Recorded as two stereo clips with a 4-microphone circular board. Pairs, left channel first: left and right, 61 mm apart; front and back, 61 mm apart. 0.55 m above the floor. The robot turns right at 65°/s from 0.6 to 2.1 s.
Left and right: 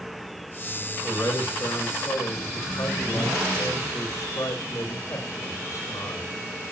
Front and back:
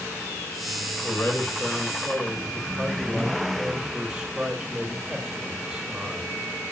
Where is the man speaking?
30° left, 5 m; by 6.3 s 100° left, 5 m.